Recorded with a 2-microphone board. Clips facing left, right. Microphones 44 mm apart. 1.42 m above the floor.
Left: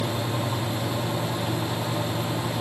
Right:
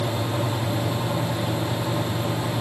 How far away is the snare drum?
No snare drum in this recording.